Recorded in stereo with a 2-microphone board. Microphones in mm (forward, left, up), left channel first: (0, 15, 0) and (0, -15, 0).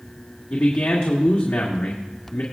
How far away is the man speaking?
About 1.8 m.